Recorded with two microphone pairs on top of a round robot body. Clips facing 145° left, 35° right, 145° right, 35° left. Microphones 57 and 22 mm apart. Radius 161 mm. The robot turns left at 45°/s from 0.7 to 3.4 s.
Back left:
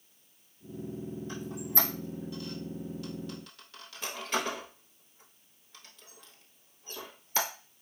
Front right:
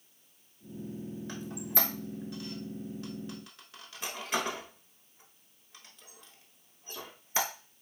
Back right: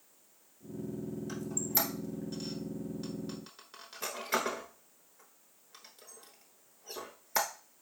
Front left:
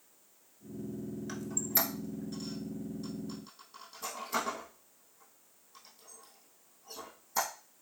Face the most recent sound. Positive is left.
turn(degrees=-110)